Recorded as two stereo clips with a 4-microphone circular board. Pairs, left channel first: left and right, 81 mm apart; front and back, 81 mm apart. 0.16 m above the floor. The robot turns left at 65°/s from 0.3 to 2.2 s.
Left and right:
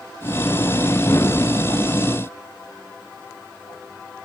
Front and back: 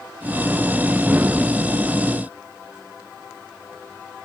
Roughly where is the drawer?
I don't hear a drawer.